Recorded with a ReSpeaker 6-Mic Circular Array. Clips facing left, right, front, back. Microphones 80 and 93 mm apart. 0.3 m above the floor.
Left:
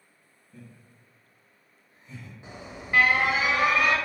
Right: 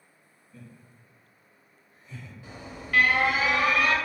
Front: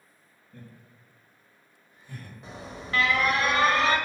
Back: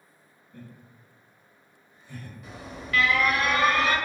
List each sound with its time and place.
0.5 s laughter: 45° left, 1.8 m; by 2.4 s 25° left, 2.5 m
2.4 s an alarm: 35° left, 0.7 m